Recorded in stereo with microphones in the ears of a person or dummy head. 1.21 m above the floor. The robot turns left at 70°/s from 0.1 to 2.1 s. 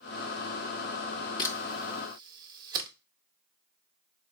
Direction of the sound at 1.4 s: 25° left (ahead or behind).